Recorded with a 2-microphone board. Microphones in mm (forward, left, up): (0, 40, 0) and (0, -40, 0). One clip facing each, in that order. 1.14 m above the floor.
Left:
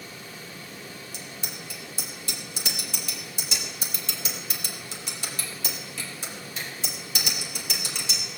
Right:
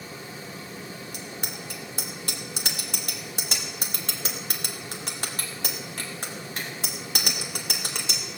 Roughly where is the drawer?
I don't hear a drawer.